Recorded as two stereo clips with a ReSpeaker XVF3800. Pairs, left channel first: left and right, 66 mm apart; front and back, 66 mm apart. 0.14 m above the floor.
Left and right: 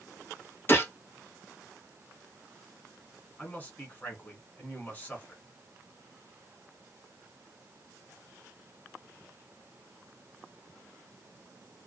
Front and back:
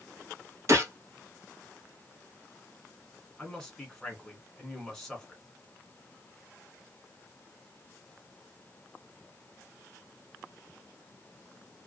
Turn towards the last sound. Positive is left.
turn(degrees=70)